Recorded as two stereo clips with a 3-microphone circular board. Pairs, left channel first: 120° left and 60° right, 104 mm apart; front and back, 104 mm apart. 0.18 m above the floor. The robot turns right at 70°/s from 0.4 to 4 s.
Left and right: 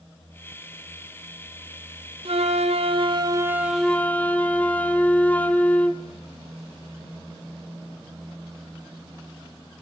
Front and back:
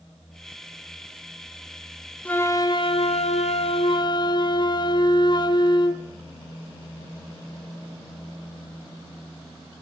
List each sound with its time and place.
2.2 s a flute: 80° right, 1.1 m; by 6.0 s 45° left, 1.1 m